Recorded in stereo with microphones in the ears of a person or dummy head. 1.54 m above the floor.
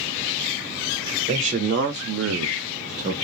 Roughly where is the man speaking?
Right.